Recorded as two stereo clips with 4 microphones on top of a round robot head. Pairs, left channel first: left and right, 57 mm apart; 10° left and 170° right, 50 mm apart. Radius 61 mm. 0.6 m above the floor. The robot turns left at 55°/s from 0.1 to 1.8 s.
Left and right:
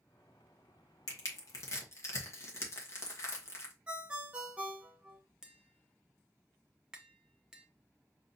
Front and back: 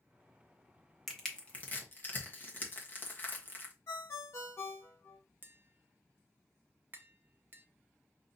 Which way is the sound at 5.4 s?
160° right.